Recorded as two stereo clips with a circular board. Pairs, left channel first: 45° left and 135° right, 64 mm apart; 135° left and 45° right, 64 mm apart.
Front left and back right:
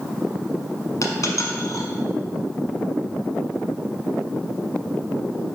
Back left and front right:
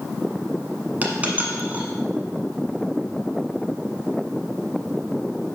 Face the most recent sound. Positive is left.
turn(degrees=20)